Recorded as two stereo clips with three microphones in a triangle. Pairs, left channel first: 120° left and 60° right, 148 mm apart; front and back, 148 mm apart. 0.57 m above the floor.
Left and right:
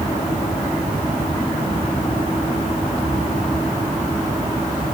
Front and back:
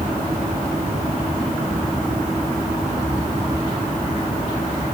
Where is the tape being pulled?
I don't hear tape being pulled.